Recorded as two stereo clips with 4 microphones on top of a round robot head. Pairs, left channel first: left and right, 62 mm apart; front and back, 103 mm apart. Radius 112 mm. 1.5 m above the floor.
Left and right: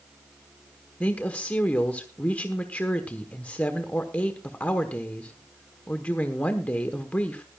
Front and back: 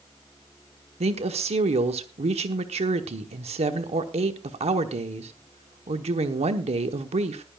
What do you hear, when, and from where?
1.0 s a woman speaking: 160° left, 1.0 m